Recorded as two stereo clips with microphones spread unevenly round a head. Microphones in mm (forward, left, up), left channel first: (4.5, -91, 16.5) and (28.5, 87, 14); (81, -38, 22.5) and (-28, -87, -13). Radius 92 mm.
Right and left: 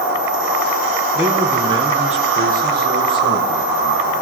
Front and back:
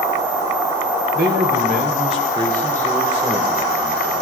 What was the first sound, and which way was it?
A man speaking, 165° left.